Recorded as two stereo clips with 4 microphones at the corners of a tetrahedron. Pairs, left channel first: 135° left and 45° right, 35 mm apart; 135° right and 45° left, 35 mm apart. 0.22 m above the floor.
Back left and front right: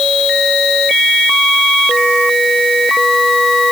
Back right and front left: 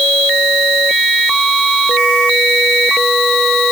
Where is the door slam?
I don't hear a door slam.